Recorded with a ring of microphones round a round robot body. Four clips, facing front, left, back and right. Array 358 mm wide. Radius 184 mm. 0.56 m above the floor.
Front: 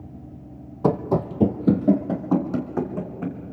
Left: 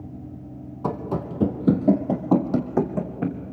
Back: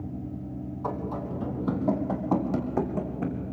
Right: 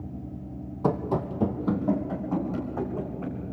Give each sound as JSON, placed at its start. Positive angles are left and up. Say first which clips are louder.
{"t": 0.8, "sound": "running footsteps", "louder": "right 1 dB, front 11 dB", "azimuth_deg": 0, "distance_m": 1.5}